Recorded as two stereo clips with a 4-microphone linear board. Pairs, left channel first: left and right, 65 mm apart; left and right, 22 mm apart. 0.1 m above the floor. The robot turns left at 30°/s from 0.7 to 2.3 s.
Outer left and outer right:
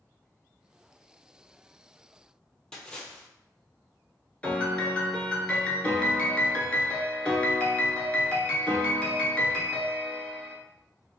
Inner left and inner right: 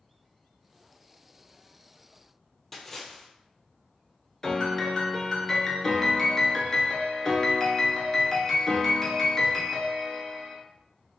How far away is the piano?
About 0.7 m.